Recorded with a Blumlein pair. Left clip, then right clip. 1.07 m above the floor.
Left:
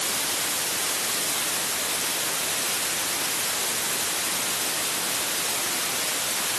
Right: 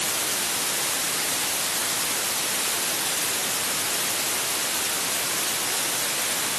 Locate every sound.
Only background noise.